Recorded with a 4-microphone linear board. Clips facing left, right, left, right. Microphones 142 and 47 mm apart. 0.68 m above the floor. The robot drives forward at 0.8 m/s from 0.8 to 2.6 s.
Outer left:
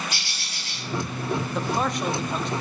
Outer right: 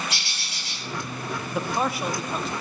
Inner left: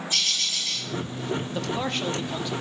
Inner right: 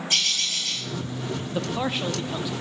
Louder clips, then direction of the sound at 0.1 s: Even, inner right 2 dB; 80° right.